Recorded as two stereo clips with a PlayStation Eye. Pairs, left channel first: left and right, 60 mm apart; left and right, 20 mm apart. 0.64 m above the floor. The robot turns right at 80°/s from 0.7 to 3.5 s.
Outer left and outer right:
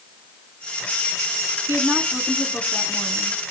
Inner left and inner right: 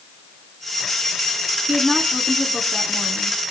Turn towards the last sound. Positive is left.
turn(degrees=100)